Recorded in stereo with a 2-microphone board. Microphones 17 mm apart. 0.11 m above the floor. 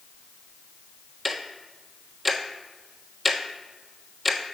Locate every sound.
1.2 s ticking: 10° right (ahead or behind), 1.1 m